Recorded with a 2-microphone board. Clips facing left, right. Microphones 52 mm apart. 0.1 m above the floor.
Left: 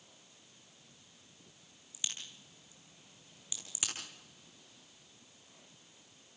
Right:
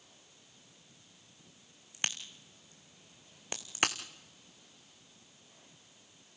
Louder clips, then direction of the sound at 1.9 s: Right 6 dB; 50° right (ahead or behind).